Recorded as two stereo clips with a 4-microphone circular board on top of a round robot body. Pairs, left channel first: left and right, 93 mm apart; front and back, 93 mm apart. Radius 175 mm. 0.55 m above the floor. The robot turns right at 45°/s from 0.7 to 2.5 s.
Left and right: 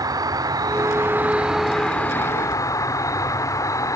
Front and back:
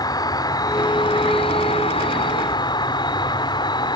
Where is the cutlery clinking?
No cutlery clinking in this recording.